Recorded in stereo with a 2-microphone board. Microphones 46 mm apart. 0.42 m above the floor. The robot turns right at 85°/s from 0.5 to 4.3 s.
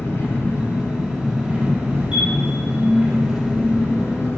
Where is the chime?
25° right (ahead or behind), 3 m; by 2.3 s 10° right (ahead or behind), 3 m.